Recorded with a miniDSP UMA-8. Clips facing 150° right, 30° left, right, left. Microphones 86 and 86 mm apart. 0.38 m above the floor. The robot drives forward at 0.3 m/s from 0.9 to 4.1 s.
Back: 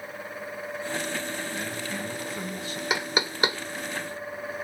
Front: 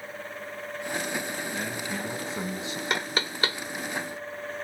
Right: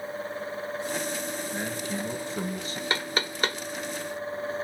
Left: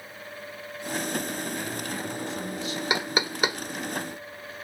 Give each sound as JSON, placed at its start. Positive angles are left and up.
{"t": 1.5, "sound": "a man speaking", "azimuth_deg": -35, "distance_m": 6.0}
{"t": 2.9, "sound": "knocking", "azimuth_deg": 135, "distance_m": 0.5}